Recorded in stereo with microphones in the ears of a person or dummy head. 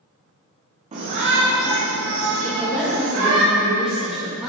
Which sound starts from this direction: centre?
A woman speaking, at 2.4 s.